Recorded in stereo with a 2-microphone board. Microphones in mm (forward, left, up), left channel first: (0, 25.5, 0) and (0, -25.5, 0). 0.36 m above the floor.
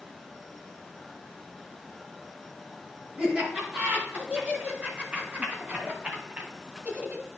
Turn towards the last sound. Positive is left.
turn(degrees=-30)  # may be behind; listen again after turning